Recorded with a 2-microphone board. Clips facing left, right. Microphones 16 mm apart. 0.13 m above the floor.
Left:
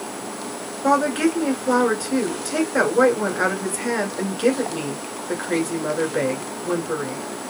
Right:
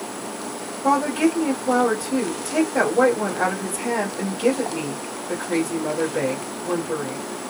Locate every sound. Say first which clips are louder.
0.8 s a woman speaking: left 1 dB; 35° left (ahead or behind), 1.3 m